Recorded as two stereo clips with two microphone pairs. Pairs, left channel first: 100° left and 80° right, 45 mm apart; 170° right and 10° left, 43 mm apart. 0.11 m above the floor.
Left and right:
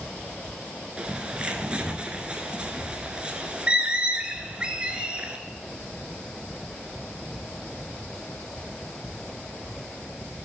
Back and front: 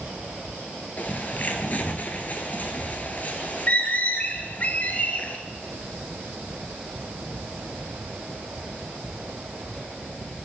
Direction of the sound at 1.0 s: 140° right.